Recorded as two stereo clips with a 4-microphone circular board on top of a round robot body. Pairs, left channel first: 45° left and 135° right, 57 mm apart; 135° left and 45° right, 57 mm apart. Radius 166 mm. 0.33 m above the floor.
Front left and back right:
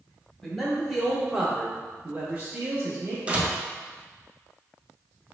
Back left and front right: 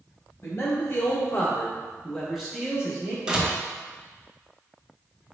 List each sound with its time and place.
0.4 s a man speaking: 125° left, 1.3 m; by 3.2 s 105° right, 1.2 m
3.3 s a door slam: 100° right, 0.8 m